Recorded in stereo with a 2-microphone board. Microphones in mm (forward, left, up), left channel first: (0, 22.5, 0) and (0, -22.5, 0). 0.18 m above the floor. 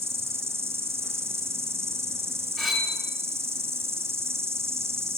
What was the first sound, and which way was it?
An insect, 80° right.